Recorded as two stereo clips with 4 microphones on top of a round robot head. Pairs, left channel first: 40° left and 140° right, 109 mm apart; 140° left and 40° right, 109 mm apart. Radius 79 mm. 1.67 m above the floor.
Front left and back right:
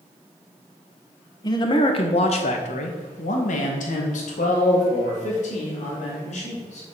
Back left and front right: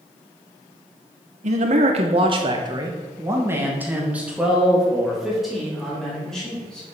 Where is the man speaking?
20° right, 1.7 m; by 6.9 s 60° left, 5 m.